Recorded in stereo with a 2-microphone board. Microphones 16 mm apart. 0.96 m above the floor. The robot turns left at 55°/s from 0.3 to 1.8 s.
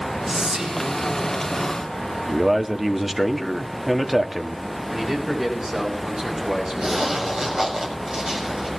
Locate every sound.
0.3 s whispering: 25° right, 6.5 m; by 0.9 s 60° right, 6.5 m
2.3 s a man speaking: 5° right (ahead or behind), 1.6 m
4.9 s a man speaking: 65° right (ahead or behind), 8 m
6.8 s a zipper: 70° right (ahead or behind), 6.5 m